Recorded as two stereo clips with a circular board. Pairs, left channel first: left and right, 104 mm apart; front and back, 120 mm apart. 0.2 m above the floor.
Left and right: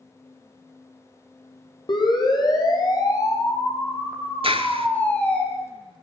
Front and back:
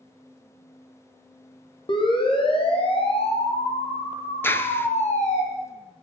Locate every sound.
1.9 s a siren: 45° left, 8 m; by 5.4 s 10° left, 6 m
4.4 s a clap: 70° right, 2.5 m